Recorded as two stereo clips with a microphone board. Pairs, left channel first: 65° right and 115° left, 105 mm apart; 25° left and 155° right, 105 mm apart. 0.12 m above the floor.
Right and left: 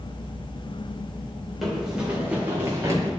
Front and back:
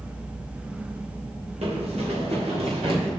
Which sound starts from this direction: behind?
Running footsteps, at 1.6 s.